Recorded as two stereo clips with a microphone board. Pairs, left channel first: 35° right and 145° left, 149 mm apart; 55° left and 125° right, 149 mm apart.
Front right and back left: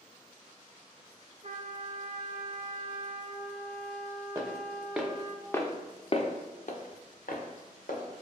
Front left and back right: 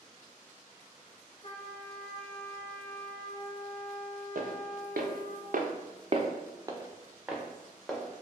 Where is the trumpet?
110° left, 1.0 m.